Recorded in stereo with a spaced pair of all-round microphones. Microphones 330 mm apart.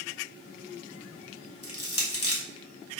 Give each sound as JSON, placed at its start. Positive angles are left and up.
{"t": 1.6, "sound": "crushing", "side_deg": 50, "distance_m": 1.0}